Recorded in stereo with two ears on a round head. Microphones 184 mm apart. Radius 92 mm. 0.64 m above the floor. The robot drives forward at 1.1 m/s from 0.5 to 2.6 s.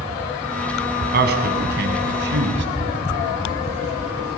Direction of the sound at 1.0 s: 50° right (ahead or behind).